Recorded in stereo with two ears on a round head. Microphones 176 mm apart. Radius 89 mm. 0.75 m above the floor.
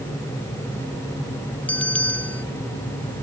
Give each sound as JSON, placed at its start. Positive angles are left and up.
{"t": 1.7, "sound": "a bell", "side_deg": 5}